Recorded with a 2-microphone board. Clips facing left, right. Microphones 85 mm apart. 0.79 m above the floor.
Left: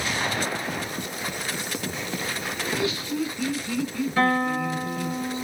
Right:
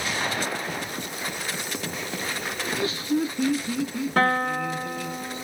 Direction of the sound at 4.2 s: 65° right (ahead or behind).